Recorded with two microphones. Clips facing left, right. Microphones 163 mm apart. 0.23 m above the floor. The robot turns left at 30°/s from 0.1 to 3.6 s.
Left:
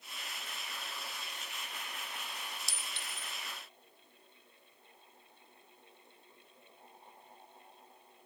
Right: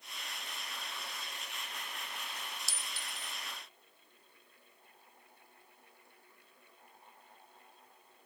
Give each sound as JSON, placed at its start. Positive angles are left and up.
{"t": 2.7, "sound": "a clink", "side_deg": 0, "distance_m": 0.6}